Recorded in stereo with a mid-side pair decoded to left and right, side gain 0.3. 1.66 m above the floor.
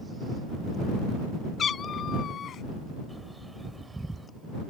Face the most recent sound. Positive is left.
turn(degrees=-20)